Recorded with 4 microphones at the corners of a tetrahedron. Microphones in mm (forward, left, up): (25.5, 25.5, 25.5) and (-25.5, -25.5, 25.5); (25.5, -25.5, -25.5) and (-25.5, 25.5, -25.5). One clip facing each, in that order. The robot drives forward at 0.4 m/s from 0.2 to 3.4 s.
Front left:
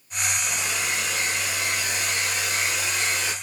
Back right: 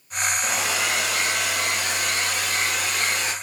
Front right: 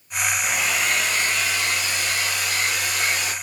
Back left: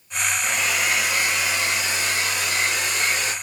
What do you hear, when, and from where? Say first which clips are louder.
0.4 s a hair dryer: back right 4 dB, back left 1 dB; 130° right, 0.6 m; by 3.3 s 165° right, 1.6 m